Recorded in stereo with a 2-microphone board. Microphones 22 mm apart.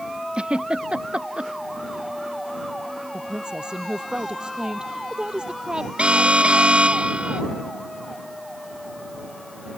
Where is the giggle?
65° right (ahead or behind).